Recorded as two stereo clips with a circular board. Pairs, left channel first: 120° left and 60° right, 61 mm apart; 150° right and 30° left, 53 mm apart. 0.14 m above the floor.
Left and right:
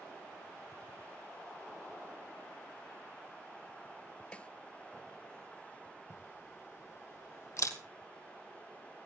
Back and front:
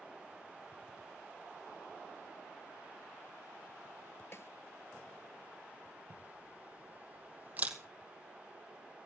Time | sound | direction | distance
4.3 | a snare drum | 175° right | 0.6 m
6.1 | a camera shutter | 90° left | 1.9 m